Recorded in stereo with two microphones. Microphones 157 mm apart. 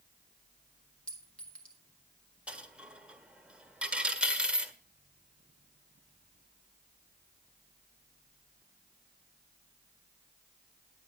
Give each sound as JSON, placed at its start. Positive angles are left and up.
{"t": 1.1, "sound": "a clink", "side_deg": 5, "distance_m": 2.0}
{"t": 2.5, "sound": "a dropped coin", "side_deg": -5, "distance_m": 1.3}